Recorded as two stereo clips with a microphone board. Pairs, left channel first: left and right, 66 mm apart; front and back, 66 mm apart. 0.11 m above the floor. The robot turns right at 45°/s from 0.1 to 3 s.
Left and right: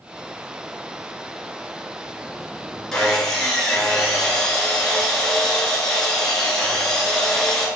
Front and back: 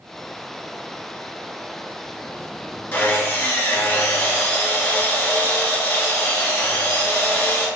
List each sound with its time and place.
2.9 s sawing: 20° left, 0.8 m; by 7.7 s 25° left, 0.8 m